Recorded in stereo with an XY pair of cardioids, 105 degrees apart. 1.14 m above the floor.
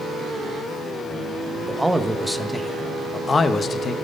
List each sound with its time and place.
1.7 s a man speaking: 5° right, 1.3 m; by 4.0 s 50° left, 1.3 m